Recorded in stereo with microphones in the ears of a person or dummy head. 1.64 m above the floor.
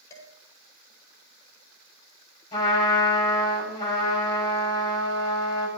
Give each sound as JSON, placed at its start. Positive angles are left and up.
{"t": 0.1, "sound": "dishes clattering", "side_deg": 20, "distance_m": 6.5}
{"t": 2.5, "sound": "a trumpet", "side_deg": 30, "distance_m": 6.0}